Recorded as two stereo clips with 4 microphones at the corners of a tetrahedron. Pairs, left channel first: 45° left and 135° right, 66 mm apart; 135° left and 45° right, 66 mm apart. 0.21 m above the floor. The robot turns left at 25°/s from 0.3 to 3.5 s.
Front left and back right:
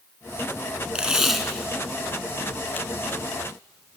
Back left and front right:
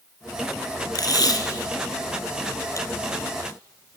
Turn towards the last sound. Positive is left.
turn(degrees=85)